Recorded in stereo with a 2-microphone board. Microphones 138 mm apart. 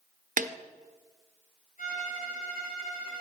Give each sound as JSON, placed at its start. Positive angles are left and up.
{"t": 0.4, "sound": "a snare drum", "side_deg": -70, "distance_m": 0.7}
{"t": 1.8, "sound": "a violin", "side_deg": 75, "distance_m": 5.5}